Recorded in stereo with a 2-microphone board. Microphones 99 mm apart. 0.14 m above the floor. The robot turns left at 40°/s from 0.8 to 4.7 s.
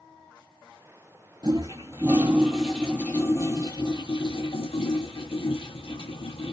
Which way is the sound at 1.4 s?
135° right.